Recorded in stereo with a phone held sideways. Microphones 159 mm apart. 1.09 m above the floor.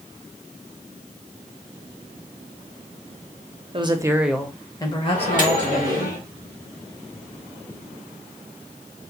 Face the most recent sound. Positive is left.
turn(degrees=55)  # may be behind; listen again after turning